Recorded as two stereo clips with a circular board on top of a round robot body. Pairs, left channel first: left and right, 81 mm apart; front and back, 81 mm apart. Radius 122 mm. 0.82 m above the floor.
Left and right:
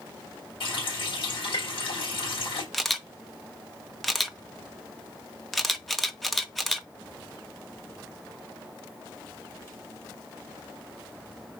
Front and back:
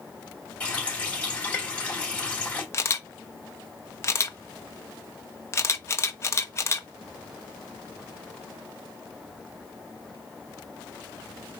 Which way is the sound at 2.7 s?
5° left.